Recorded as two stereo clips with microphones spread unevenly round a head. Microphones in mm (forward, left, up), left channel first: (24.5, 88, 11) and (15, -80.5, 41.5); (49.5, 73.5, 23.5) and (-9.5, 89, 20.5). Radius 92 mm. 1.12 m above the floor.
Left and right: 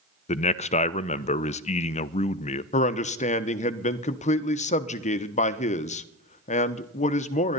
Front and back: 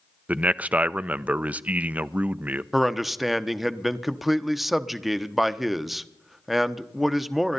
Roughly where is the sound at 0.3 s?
Left.